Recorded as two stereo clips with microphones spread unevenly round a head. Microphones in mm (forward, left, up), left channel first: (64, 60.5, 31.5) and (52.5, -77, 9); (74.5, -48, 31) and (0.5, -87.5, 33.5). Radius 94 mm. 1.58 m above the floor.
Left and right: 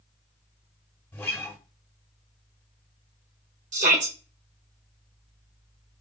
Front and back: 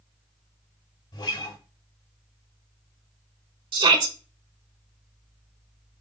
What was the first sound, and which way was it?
A guitar, 10° left.